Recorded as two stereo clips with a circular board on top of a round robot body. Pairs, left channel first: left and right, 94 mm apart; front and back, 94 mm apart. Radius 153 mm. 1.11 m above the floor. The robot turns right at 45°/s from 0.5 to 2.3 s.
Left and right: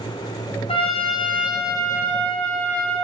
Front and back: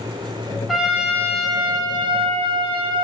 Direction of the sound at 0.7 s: 90° left.